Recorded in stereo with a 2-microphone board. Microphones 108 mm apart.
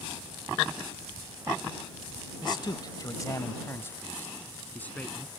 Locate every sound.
2.4 s a man speaking: 45° left (ahead or behind); by 5.4 s 10° left (ahead or behind)